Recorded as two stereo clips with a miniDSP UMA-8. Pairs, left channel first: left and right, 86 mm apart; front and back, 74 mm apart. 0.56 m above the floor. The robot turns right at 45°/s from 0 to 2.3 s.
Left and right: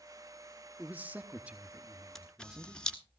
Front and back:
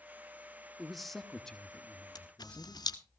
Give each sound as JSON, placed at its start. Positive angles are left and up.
{"t": 0.8, "sound": "a man speaking", "azimuth_deg": -95, "distance_m": 0.9}
{"t": 2.1, "sound": "a camera shutter", "azimuth_deg": 5, "distance_m": 1.2}